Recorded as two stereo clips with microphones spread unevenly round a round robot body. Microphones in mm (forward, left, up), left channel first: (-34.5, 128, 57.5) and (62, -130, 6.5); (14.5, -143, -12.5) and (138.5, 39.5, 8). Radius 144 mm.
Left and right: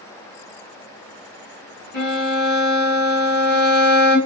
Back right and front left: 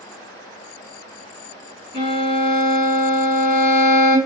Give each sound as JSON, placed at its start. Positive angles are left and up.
{"t": 1.9, "sound": "a violin", "azimuth_deg": 165, "distance_m": 1.4}